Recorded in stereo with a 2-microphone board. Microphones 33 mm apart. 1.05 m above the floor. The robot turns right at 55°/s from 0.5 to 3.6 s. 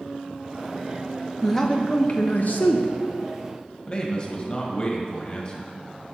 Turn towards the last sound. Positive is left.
turn(degrees=25)  # may be behind; listen again after turning